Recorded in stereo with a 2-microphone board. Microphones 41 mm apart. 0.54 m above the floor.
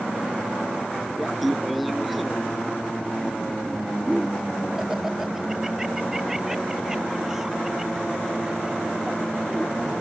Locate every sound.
1.2 s laughter: centre (ahead or behind); by 9.9 s 10° right (ahead or behind)